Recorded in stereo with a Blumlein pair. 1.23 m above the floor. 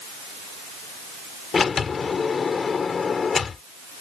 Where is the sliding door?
20° left.